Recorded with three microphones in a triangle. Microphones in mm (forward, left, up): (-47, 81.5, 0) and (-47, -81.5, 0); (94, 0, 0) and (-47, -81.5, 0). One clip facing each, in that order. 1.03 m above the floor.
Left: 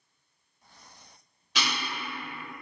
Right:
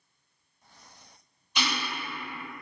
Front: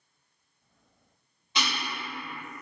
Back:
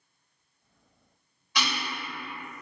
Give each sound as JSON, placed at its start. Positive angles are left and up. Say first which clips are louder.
{"t": 1.6, "sound": "ticking", "louder": "right 1 dB, back 1 dB", "azimuth_deg": 95, "distance_m": 1.2}